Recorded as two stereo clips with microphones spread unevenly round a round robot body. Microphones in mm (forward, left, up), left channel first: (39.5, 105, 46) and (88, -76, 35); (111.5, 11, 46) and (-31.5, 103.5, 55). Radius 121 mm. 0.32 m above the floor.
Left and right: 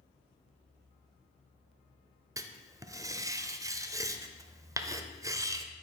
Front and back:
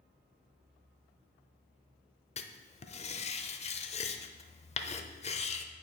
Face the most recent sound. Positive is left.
turn(degrees=-15)